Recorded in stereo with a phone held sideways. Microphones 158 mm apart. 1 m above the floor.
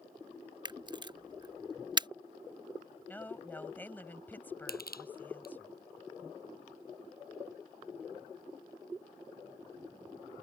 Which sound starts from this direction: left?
Crushing, at 4.7 s.